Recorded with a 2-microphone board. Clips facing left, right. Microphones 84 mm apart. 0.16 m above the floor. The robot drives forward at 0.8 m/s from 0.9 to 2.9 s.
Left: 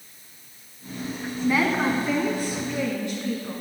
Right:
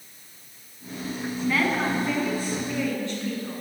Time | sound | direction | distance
1.4 | a woman speaking | 15° left (ahead or behind) | 1.4 m